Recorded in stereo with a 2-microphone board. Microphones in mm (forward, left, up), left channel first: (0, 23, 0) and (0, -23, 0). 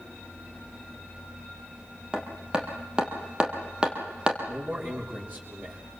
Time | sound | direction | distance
2.1 | hammering | 20° right (ahead or behind) | 3.5 m
4.5 | a man speaking | 40° right (ahead or behind) | 6 m